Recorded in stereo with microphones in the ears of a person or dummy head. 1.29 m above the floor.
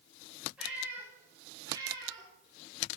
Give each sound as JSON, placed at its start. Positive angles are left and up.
{"t": 0.6, "sound": "a cat meowing", "side_deg": -10, "distance_m": 6.5}